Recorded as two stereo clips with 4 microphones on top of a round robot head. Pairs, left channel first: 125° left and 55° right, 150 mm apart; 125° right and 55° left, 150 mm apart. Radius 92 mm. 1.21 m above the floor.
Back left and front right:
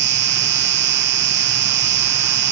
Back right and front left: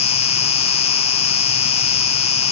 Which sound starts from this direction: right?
An insect, at 0.0 s.